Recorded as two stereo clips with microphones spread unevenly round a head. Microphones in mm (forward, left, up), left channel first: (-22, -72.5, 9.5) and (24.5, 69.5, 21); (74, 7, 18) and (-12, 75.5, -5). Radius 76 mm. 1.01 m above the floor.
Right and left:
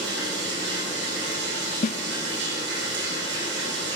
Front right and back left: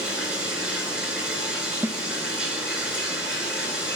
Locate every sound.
0.0 s running water: 60° left, 8 m
1.8 s a snare drum: 150° right, 0.6 m